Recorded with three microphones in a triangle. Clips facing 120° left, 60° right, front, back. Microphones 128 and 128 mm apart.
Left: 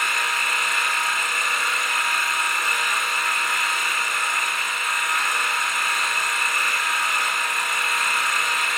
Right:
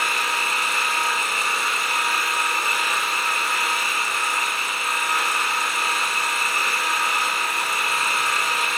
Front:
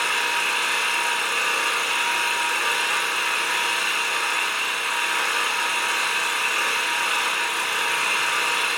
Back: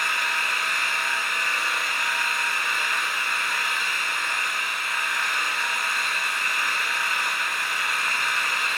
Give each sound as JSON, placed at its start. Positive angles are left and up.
{"t": 0.0, "sound": "an engine running", "azimuth_deg": 0, "distance_m": 5.5}